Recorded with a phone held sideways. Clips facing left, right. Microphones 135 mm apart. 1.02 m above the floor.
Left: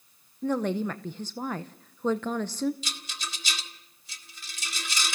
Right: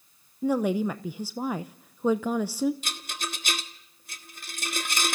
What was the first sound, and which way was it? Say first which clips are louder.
A woman speaking: right 3 dB; 10° right (ahead or behind).